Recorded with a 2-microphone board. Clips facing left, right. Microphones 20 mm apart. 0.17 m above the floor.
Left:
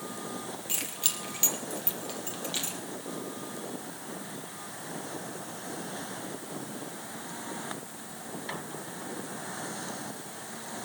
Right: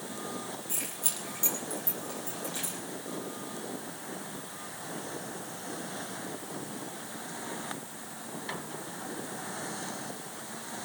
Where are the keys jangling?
55° left (ahead or behind), 3.5 m.